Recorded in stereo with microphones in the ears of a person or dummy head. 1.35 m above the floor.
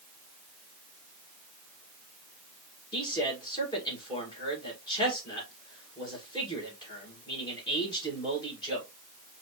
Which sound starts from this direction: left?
A man speaking, at 2.9 s.